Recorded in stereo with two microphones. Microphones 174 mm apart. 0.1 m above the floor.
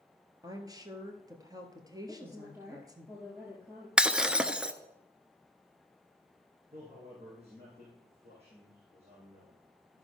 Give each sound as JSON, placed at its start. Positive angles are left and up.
{"t": 0.4, "sound": "a woman speaking", "side_deg": -20, "distance_m": 1.6}
{"t": 2.1, "sound": "a woman speaking", "side_deg": -15, "distance_m": 2.0}
{"t": 4.0, "sound": "breaking glass", "side_deg": -5, "distance_m": 0.7}
{"t": 6.7, "sound": "a man speaking", "side_deg": -40, "distance_m": 5.0}